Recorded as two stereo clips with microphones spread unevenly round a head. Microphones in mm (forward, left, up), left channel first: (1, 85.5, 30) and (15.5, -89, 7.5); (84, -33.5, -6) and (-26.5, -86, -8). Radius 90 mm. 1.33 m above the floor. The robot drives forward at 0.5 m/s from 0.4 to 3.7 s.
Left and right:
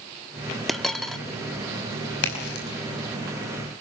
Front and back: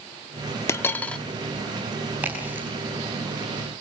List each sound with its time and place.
0.7 s a dropped coin: 25° left, 0.9 m; by 1.2 s 65° left, 0.8 m
2.2 s a crack: 125° left, 5 m